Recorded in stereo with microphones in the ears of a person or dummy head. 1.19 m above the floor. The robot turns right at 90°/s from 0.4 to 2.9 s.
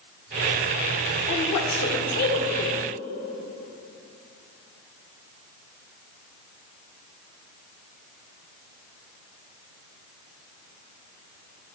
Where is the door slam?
No door slam in this recording.